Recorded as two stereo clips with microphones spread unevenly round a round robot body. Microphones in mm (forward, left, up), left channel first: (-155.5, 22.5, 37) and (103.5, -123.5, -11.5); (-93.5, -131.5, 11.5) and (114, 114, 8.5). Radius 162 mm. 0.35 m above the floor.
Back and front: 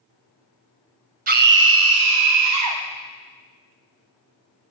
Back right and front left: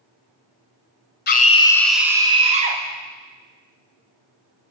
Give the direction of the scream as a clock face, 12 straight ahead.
3 o'clock.